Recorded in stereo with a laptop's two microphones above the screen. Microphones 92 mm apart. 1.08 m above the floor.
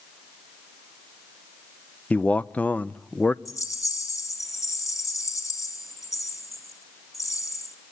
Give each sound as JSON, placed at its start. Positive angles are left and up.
{"t": 2.1, "sound": "a man speaking", "side_deg": 15, "distance_m": 0.5}
{"t": 3.5, "sound": "a rattle", "side_deg": 35, "distance_m": 2.0}